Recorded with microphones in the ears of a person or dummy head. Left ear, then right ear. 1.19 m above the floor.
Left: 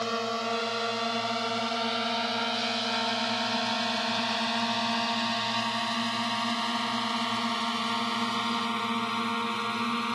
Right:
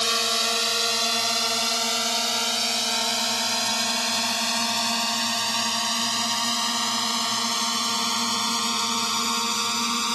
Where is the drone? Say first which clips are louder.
Right 7 dB; 80° right.